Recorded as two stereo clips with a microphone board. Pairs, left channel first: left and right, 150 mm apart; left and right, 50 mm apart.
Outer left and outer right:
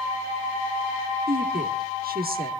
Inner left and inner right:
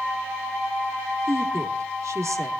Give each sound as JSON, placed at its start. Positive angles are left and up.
{"t": 1.3, "sound": "a woman speaking", "side_deg": -85, "distance_m": 1.6}